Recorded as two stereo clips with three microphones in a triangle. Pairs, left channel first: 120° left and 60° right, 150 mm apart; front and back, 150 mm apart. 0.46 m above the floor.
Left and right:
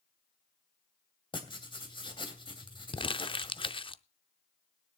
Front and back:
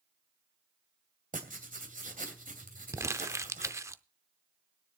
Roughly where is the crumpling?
Behind left.